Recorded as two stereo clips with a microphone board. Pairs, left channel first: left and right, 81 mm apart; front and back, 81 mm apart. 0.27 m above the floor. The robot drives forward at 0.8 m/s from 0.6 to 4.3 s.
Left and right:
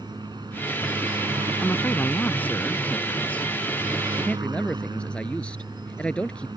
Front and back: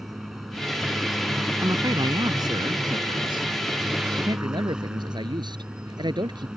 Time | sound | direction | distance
0.0 | a helicopter | 95° right | ?
1.6 | a man speaking | 150° left | ?